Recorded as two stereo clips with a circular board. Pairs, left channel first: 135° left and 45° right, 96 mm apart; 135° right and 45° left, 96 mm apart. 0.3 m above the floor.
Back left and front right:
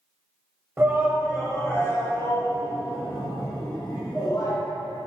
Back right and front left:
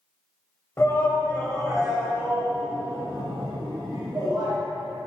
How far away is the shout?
About 1.3 m.